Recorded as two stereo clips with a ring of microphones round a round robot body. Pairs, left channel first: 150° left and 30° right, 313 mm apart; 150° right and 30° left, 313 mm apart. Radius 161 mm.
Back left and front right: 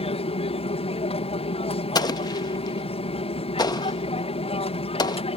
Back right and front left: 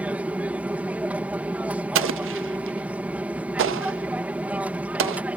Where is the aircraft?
110° left.